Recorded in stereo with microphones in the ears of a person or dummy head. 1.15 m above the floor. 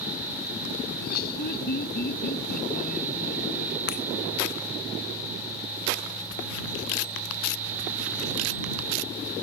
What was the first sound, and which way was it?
Laughter, 65° left (ahead or behind).